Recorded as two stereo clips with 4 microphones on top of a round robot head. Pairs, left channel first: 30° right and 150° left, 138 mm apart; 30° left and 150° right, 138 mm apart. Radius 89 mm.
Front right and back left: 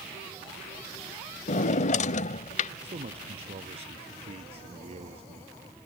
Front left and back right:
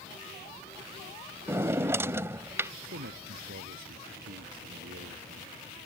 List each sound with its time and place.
1.5 s a drawer: 75° right
2.8 s a man speaking: 165° right